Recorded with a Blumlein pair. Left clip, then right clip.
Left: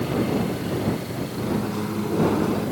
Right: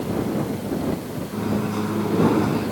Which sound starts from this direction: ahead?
A microwave, at 1.3 s.